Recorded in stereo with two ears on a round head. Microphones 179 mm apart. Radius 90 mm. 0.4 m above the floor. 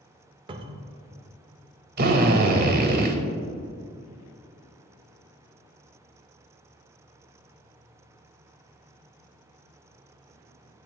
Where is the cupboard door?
25° right (ahead or behind), 0.6 m.